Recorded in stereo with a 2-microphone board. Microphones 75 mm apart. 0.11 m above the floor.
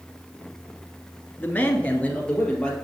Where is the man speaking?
20° left (ahead or behind), 1.1 m; by 2.7 s 15° left (ahead or behind), 2 m.